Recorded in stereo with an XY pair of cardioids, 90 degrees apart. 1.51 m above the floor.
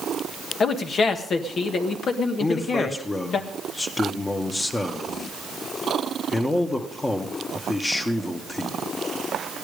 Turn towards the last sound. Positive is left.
turn(degrees=30)